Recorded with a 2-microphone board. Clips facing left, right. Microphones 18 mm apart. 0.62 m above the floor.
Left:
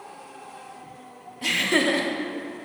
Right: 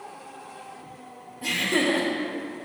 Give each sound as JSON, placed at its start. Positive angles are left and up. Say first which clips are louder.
{"t": 1.4, "sound": "laughter", "louder": "left 2 dB", "side_deg": 45, "distance_m": 0.9}